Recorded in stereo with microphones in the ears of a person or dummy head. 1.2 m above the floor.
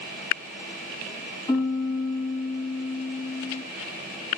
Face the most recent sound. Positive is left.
turn(degrees=20)  # may be behind; listen again after turning